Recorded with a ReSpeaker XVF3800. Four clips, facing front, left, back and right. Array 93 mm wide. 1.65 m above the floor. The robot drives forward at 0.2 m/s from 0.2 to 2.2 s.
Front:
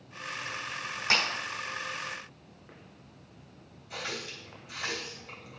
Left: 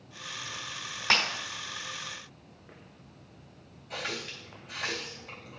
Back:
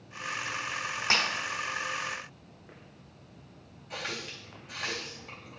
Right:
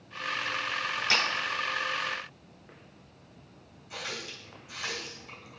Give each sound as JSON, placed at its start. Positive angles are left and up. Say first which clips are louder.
{"t": 1.1, "sound": "breaking glass", "louder": "left 2 dB, even", "azimuth_deg": 120, "distance_m": 3.0}
{"t": 3.9, "sound": "a running tap", "louder": "left 2 dB, even", "azimuth_deg": 145, "distance_m": 1.9}